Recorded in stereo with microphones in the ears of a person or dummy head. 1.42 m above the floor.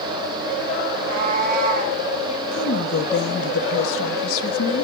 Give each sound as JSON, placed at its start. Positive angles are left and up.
{"t": 0.9, "sound": "a cat meowing", "side_deg": -50, "distance_m": 6.0}
{"t": 2.5, "sound": "a woman speaking", "side_deg": 75, "distance_m": 2.5}